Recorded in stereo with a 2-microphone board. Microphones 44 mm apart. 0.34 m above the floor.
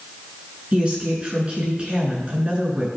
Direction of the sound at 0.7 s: 25° right (ahead or behind).